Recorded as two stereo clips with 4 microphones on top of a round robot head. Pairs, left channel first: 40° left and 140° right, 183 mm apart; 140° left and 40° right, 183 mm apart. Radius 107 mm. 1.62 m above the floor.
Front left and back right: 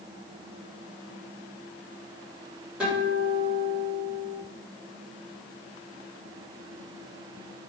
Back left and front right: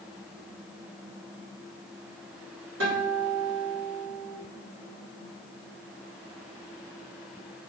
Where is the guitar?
55° right, 2 m.